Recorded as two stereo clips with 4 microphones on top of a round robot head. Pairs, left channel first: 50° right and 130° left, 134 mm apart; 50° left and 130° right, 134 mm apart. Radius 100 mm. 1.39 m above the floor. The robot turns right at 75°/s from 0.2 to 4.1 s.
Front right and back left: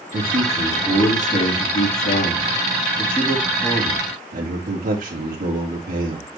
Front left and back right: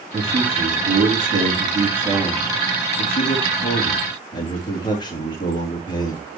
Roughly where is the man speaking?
Behind.